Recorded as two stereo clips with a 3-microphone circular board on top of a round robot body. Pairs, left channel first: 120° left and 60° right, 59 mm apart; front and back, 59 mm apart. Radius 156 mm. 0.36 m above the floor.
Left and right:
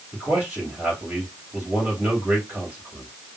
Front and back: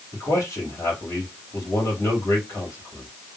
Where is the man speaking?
10° left, 3 m.